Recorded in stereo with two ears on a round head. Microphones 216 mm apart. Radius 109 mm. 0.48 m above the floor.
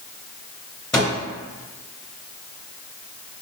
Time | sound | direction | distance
0.9 | a microwave | centre (ahead or behind) | 2.5 m